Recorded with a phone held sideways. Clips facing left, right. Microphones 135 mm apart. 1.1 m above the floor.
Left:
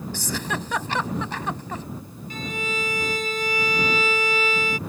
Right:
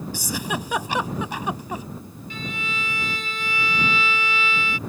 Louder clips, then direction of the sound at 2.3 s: Left 3 dB; 40° left (ahead or behind).